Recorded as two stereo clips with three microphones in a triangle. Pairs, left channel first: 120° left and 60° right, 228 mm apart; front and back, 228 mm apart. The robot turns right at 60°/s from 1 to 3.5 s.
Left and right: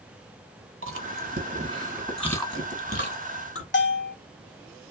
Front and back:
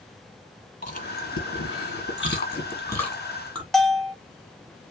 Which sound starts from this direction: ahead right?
Chewing, at 0.8 s.